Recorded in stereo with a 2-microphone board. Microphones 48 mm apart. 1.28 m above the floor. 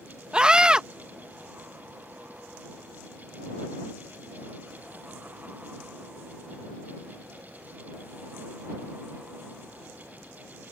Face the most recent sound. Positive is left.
turn(degrees=-20)  # may be behind; listen again after turning